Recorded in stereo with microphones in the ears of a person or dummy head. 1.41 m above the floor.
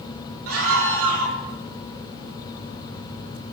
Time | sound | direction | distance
0.5 | a scream | 80° right | 5.5 m